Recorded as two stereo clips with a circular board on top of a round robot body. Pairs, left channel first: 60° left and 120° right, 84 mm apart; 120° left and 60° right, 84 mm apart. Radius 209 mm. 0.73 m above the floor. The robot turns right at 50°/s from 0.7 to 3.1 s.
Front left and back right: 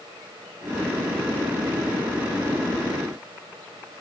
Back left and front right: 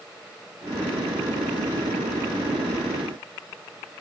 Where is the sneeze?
I don't hear a sneeze.